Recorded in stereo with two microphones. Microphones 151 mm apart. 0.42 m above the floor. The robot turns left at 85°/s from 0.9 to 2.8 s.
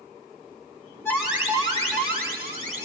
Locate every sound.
1.1 s an alarm: 15° left, 4 m; by 2.9 s 135° right, 4 m